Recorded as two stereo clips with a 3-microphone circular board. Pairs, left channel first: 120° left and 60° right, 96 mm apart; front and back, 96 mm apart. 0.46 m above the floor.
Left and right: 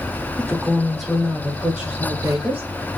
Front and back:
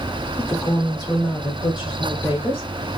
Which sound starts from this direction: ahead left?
A woman speaking, at 0.4 s.